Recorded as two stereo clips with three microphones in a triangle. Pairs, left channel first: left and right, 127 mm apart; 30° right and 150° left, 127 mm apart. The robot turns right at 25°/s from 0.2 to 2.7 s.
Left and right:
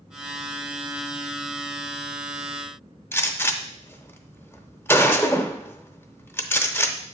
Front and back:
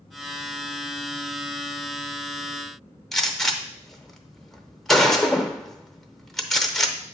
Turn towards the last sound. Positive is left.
turn(degrees=55)